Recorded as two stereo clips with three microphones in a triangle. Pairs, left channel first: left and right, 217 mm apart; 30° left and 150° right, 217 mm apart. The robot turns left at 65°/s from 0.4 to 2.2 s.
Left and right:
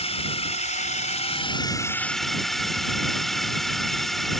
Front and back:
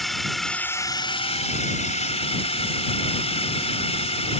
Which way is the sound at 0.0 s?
120° left.